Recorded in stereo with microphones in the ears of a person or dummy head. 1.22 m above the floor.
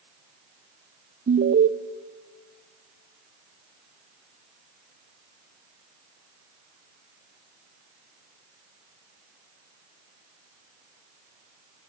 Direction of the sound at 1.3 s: 40° right (ahead or behind).